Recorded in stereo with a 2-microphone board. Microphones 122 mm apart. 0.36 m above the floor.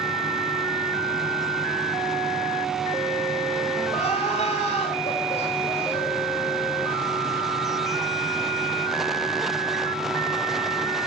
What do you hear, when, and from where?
3.9 s crying: 70° left (ahead or behind), 6.5 m